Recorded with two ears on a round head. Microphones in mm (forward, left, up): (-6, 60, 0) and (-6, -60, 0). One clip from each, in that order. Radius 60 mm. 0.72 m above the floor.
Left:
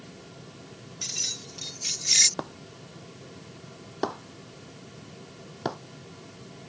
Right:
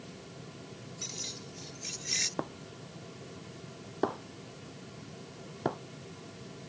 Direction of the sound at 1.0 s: 50° left (ahead or behind).